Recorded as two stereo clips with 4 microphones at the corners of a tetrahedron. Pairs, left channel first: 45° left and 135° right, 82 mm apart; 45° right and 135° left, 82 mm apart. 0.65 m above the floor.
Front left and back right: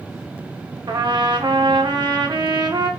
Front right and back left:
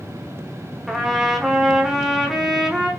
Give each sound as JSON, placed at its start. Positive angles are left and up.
{"t": 0.9, "sound": "a trumpet", "azimuth_deg": -140, "distance_m": 0.6}